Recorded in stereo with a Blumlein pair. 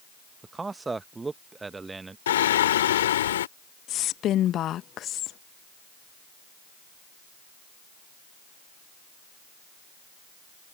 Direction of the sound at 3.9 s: 30° left.